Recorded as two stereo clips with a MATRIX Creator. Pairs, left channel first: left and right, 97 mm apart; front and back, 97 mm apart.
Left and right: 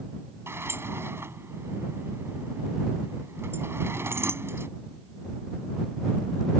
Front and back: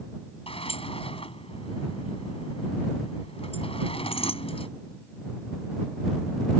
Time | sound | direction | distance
0.5 | a sliding door | 25° right | ?